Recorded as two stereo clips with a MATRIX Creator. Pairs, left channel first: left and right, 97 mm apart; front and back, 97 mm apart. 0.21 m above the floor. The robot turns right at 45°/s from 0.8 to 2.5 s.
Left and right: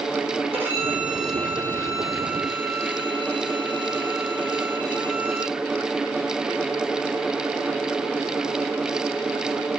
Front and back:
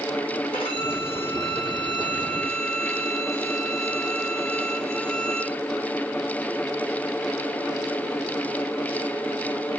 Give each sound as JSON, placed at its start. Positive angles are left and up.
{"t": 0.5, "sound": "a violin", "azimuth_deg": -20, "distance_m": 4.0}